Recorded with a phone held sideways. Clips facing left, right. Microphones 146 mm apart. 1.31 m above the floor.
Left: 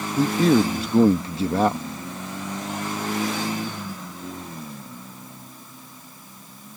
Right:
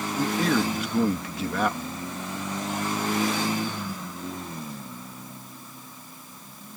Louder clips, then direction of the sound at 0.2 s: Left 7 dB; 30° left (ahead or behind).